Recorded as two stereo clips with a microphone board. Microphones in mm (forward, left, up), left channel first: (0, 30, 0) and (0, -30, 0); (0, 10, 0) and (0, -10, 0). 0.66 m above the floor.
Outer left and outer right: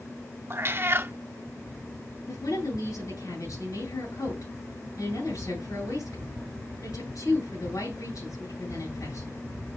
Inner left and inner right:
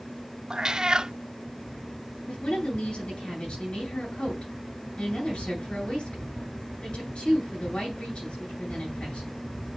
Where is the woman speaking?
75° left (ahead or behind), 9 m.